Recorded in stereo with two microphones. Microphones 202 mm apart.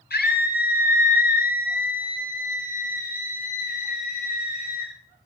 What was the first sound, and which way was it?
A scream, 50° left (ahead or behind).